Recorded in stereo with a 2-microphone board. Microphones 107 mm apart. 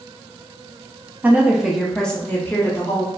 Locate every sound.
1.2 s a woman speaking: 15° right (ahead or behind), 0.9 m; by 3.1 s 35° left (ahead or behind), 1.0 m